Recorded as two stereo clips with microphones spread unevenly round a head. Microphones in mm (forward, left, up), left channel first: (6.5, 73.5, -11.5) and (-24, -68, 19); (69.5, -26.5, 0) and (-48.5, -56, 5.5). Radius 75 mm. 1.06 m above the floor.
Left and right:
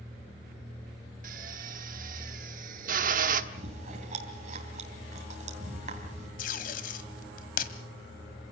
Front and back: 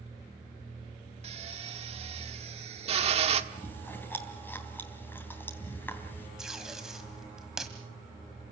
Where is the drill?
130° right, 1.5 m.